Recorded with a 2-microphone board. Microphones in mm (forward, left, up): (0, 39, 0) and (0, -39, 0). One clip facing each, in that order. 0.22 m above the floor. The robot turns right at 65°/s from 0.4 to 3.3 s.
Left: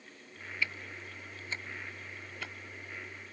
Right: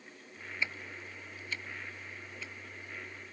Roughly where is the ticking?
Right.